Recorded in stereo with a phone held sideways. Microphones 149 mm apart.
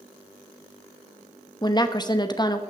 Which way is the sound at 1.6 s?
30° left (ahead or behind).